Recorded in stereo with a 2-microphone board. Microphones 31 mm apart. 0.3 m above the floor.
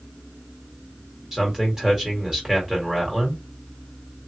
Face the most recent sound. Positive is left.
turn(degrees=-20)  # may be behind; listen again after turning